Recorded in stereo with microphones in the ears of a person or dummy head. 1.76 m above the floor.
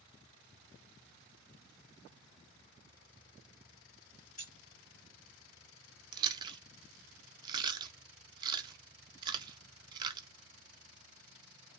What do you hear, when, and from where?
4.4 s keys jangling: 40° left (ahead or behind), 1.3 m
6.1 s chewing: 25° right (ahead or behind), 0.5 m